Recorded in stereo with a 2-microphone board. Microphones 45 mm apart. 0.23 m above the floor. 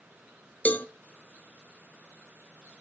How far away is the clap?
I don't hear a clap.